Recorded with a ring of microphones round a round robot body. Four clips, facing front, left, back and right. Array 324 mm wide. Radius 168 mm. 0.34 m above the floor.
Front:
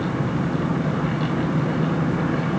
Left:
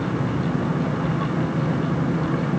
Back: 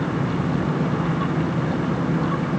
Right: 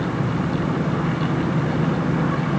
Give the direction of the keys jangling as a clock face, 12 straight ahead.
I don't hear keys jangling.